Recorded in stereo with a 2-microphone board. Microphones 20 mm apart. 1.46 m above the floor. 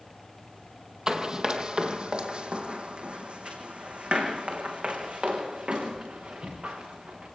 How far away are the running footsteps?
About 1.8 m.